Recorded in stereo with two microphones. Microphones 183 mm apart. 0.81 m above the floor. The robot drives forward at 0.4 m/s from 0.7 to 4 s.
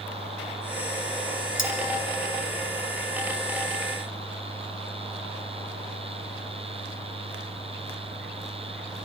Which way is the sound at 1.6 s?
85° left.